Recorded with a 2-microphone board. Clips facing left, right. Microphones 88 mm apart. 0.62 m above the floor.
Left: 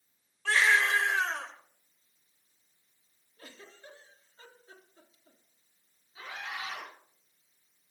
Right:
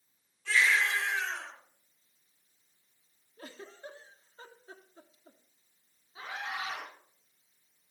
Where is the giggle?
35° right (ahead or behind), 1.4 m.